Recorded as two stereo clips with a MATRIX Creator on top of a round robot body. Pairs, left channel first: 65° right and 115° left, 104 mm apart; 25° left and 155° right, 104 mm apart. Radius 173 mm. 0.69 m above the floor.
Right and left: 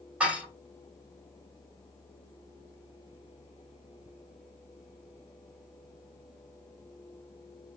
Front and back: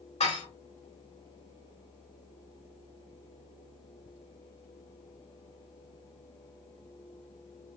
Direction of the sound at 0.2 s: 35° left.